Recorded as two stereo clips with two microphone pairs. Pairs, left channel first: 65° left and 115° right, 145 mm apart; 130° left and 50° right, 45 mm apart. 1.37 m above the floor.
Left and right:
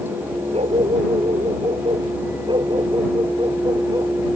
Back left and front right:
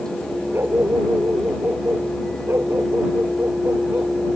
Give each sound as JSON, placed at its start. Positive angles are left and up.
{"t": 0.5, "sound": "a dog barking", "azimuth_deg": -70}